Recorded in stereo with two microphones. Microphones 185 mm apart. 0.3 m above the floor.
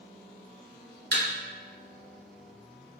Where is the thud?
65° right (ahead or behind), 0.9 m.